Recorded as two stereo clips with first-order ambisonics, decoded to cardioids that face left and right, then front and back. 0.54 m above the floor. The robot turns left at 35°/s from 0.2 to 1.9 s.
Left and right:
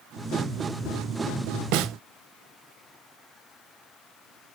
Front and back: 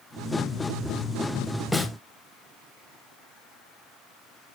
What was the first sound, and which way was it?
A snare drum, 85° right.